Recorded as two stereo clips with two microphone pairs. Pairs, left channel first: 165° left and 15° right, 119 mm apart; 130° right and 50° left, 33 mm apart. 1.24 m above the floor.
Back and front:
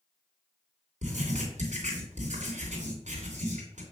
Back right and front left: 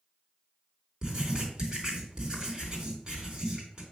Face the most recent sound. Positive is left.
turn(degrees=-15)